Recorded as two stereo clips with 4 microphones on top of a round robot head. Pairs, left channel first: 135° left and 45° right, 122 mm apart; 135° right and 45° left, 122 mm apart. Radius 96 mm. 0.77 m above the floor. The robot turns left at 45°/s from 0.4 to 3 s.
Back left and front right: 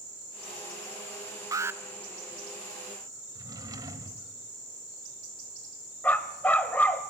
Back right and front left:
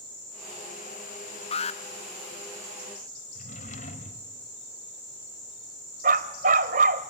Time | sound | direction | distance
1.5 | an alarm | 105° right | 0.8 m
3.4 | a drawer | 105° right | 1.3 m
6.0 | a dog barking | 55° left | 1.1 m